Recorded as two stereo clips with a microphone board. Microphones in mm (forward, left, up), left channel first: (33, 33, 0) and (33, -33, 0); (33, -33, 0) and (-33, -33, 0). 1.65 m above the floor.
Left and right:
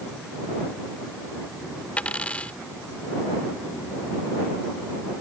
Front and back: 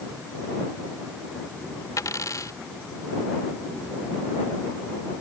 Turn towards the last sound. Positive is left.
turn(degrees=20)